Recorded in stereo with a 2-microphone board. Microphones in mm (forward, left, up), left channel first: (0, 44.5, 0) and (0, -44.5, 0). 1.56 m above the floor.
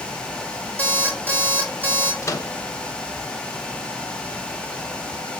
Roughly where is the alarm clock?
Right.